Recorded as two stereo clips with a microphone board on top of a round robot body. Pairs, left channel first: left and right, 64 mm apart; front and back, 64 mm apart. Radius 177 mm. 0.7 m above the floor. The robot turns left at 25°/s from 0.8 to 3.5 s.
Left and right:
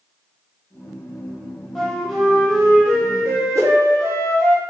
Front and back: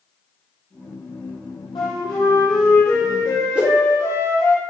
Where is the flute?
Straight ahead, 0.5 m; by 4.5 s 40° right, 0.5 m.